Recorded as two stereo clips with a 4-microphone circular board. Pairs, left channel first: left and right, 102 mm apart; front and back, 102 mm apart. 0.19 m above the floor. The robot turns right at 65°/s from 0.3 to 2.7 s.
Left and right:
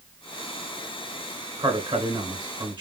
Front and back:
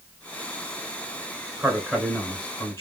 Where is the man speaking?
135° right, 2 m; by 2.8 s 65° right, 2 m.